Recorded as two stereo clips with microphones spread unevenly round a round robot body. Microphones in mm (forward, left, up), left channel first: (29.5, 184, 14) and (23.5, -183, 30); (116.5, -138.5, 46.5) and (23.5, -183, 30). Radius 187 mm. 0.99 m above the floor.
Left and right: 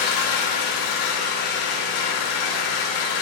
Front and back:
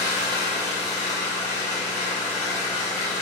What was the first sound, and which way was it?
An engine running, 80° left.